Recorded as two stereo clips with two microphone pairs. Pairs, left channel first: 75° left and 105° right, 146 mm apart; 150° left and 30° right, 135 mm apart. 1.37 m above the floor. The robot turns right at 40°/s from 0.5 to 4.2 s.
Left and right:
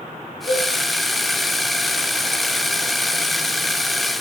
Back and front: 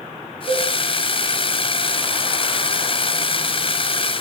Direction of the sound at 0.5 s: 120° left.